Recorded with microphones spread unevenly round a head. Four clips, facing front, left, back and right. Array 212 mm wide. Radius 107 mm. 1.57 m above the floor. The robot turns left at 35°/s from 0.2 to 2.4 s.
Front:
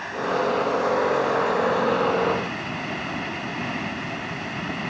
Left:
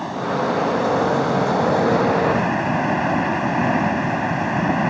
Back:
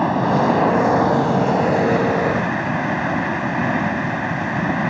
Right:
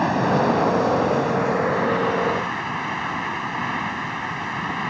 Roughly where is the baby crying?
No baby crying in this recording.